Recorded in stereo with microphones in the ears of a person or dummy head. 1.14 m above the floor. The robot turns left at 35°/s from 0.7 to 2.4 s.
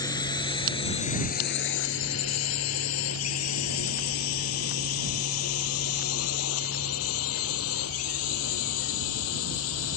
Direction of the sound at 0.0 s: 25° left (ahead or behind).